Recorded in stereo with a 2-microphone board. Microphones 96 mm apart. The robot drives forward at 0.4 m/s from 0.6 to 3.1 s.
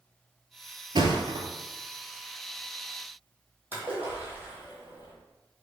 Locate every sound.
0.9 s a thud: 55° right (ahead or behind), 0.6 m; by 1.4 s 50° right (ahead or behind), 0.7 m
3.7 s a splash: 20° right (ahead or behind), 1.5 m